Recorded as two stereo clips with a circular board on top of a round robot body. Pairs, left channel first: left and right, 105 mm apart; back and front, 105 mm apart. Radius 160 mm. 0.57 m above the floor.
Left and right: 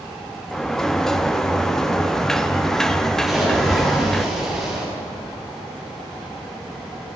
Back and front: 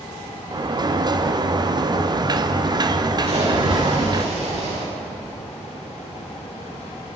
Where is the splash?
Straight ahead, 7.5 m.